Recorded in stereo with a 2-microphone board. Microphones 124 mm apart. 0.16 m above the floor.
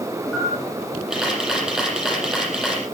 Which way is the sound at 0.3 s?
5° right (ahead or behind).